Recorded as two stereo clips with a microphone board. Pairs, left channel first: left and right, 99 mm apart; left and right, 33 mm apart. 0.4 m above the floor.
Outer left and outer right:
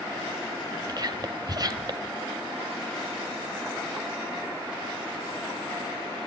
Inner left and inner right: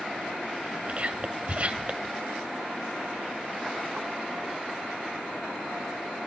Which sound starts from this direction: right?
Whispering, at 0.9 s.